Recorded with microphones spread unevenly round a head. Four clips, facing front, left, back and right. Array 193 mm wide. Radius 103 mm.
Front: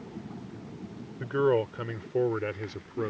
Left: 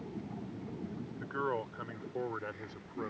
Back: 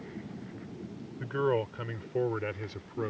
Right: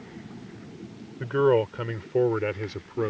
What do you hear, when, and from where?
1.2 s a man speaking: 75° right; by 3.1 s 85° right